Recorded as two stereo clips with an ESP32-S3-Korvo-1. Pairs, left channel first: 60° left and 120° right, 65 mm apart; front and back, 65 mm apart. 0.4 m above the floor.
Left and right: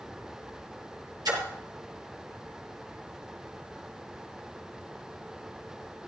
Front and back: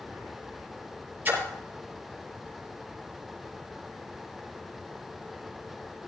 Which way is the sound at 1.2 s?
115° right.